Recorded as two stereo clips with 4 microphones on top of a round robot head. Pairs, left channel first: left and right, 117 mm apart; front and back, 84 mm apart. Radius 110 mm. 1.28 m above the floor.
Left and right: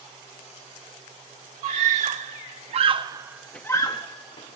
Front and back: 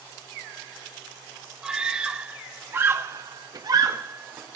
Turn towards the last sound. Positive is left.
turn(degrees=120)